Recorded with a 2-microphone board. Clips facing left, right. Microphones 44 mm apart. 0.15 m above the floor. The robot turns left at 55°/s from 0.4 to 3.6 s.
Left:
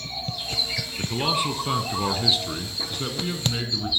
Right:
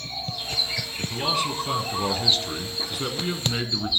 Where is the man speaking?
25° left (ahead or behind), 1.1 m; by 3.9 s 20° right (ahead or behind), 1.1 m.